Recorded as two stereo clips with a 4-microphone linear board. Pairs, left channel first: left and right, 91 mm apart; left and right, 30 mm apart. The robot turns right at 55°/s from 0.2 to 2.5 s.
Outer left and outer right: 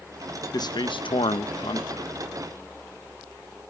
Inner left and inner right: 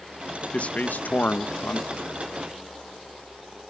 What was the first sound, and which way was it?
A man speaking, 45° left.